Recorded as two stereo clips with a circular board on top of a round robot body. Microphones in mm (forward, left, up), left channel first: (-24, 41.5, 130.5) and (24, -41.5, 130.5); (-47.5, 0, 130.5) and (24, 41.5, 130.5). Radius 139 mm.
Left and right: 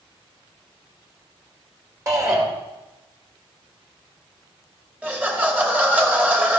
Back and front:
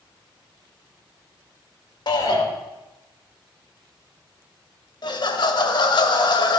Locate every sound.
2.1 s a shout: 120° right, 3 m
5.0 s laughter: 130° right, 2 m